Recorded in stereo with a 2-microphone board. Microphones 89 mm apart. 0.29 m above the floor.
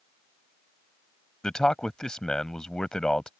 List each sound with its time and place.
1.4 s a man speaking: 10° left (ahead or behind)